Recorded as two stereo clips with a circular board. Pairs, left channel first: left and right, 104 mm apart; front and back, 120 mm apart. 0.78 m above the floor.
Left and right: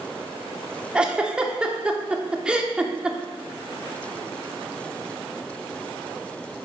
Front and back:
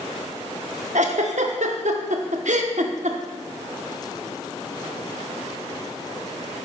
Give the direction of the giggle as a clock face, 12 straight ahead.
6 o'clock.